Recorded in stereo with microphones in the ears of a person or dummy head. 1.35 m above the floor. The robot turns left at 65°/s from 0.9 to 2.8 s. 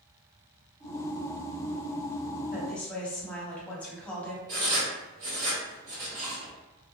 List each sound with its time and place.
2.5 s a woman speaking: 5° right (ahead or behind), 0.7 m; by 4.4 s 10° left (ahead or behind), 0.7 m
4.5 s writing: 55° right (ahead or behind), 1.5 m